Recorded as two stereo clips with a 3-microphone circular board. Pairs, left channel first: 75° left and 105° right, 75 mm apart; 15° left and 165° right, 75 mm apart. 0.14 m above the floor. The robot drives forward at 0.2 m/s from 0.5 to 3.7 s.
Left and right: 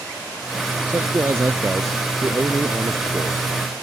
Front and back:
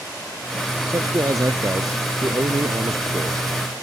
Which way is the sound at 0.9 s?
145° right.